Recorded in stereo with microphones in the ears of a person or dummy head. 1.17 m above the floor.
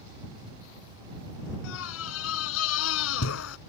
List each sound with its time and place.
1.6 s a scream: 85° left